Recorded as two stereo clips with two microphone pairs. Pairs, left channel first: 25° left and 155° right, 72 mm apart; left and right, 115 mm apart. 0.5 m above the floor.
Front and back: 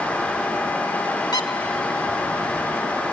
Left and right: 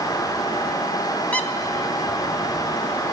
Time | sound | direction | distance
1.3 | a squeak | 15° left | 1.0 m